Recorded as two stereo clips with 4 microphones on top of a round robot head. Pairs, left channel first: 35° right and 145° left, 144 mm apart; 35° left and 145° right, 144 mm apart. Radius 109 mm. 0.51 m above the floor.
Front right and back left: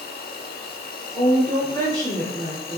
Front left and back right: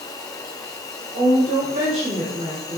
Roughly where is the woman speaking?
Right.